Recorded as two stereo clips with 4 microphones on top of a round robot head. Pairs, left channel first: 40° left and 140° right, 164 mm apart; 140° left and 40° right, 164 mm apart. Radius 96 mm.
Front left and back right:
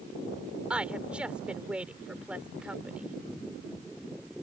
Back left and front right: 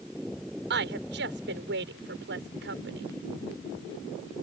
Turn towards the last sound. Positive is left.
turn(degrees=-55)